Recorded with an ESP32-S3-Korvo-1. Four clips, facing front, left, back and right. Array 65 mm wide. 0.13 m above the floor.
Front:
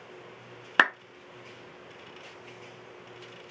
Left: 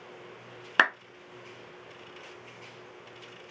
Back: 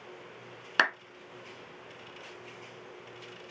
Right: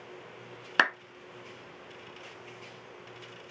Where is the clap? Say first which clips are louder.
Left 2 dB, front 4 dB; 25° left, 0.9 m.